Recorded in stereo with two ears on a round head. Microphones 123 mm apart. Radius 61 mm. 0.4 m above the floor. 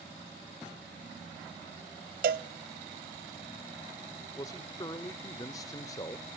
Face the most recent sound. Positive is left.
turn(degrees=25)  # may be behind; listen again after turning